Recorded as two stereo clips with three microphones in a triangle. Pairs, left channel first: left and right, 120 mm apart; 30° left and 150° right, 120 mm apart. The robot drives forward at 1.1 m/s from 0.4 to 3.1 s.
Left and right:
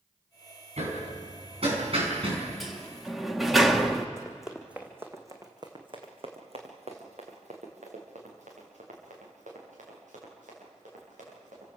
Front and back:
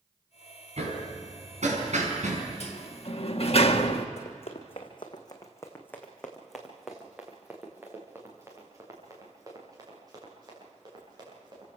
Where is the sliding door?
Straight ahead, 2.0 m.